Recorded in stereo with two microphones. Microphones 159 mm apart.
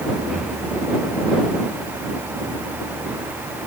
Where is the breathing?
Centre (ahead or behind).